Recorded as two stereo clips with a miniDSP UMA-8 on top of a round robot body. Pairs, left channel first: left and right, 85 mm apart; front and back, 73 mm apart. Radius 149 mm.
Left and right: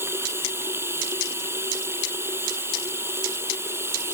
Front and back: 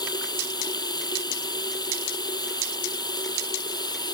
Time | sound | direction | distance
0.0 | running water | 25° right | ?